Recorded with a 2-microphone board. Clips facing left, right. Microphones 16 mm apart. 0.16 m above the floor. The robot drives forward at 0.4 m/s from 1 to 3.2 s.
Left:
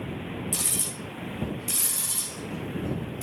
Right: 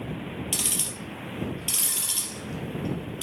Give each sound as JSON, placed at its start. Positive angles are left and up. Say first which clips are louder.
{"t": 0.5, "sound": "ticking", "louder": "right 3 dB", "side_deg": -60, "distance_m": 3.0}